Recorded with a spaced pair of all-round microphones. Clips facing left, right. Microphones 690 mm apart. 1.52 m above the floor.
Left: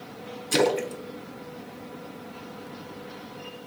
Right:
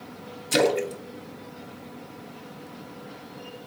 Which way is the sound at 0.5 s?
15° right (ahead or behind).